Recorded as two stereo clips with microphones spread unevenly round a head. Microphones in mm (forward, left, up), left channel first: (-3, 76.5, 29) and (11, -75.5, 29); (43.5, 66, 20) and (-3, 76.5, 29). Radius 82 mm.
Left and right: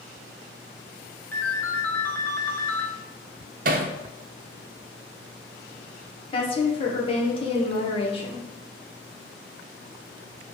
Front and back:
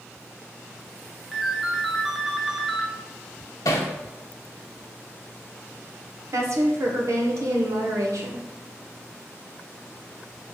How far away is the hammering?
About 0.6 m.